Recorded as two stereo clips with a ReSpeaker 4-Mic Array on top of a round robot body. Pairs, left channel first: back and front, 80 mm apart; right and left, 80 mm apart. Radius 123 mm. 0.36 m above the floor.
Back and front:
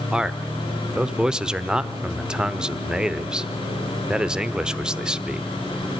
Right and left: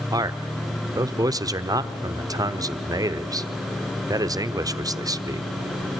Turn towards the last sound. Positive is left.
turn(degrees=80)